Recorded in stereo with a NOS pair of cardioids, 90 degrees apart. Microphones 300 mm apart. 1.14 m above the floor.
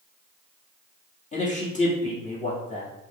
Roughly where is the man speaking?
Ahead left.